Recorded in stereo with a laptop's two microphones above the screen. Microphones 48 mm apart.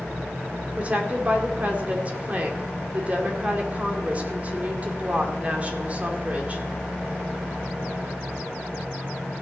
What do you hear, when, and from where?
0.8 s a woman speaking: 35° right (ahead or behind), 2 m